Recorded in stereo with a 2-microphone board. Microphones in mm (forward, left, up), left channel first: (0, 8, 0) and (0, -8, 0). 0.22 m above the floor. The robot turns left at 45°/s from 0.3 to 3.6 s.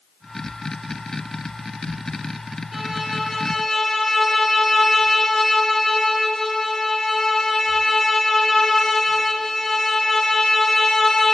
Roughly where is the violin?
Behind.